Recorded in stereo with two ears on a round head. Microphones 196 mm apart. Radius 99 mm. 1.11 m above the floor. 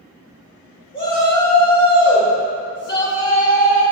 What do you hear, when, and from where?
0.9 s a shout: 45° left (ahead or behind), 1.8 m